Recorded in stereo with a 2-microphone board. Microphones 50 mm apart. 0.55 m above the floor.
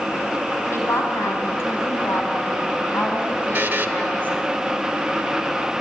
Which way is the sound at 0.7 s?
65° left (ahead or behind).